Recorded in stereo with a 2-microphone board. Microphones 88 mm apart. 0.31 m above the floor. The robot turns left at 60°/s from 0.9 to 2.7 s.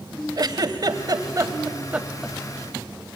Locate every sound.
0.4 s a giggle: 50° right (ahead or behind), 1.0 m; by 2.4 s centre (ahead or behind), 1.0 m